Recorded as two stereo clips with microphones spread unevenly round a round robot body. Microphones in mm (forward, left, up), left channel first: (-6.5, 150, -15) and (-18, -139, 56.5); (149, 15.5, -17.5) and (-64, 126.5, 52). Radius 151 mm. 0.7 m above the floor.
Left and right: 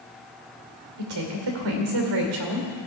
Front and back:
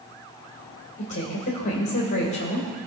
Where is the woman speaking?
90° right, 2.5 m.